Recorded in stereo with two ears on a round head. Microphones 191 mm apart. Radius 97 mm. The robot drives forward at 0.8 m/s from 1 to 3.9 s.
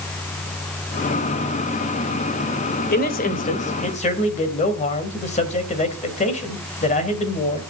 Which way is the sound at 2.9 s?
45° left (ahead or behind).